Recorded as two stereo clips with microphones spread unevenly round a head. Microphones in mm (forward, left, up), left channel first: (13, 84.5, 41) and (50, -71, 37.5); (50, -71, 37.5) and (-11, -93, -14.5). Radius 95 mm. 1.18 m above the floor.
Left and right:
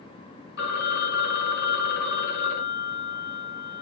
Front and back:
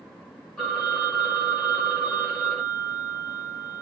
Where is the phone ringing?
90° left, 0.5 m.